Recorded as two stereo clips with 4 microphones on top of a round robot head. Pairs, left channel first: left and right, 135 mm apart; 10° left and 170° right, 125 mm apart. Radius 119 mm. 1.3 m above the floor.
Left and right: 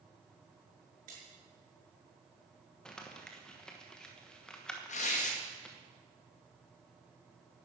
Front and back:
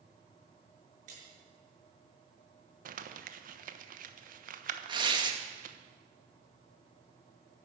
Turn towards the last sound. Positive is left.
turn(degrees=135)